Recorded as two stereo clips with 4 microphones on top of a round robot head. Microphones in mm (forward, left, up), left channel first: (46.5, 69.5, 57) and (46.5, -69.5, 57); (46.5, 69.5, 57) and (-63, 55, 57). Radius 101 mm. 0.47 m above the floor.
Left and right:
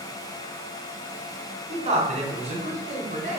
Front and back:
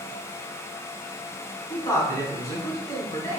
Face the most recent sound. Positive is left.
turn(degrees=-55)